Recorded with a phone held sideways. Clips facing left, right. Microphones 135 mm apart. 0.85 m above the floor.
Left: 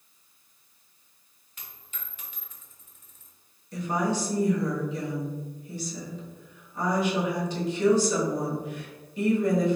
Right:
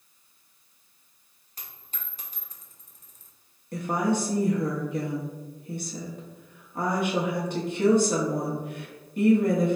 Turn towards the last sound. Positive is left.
turn(degrees=-55)  # may be behind; listen again after turning